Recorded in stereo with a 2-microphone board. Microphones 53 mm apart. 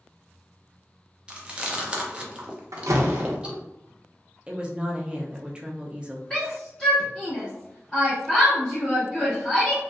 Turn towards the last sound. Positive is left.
turn(degrees=10)  # may be behind; listen again after turning